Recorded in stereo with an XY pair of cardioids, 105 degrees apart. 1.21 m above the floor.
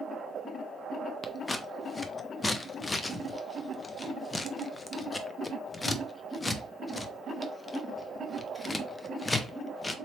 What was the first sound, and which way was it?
Scissors, 25° left.